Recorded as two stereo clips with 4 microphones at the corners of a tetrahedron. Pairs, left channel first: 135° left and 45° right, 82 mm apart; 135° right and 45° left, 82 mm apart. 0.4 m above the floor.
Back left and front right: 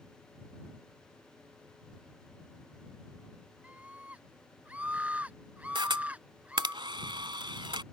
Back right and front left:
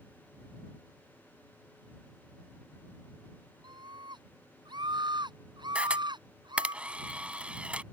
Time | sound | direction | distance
3.6 | a scream | 30° left | ?
5.8 | a camera shutter | 30° right | ?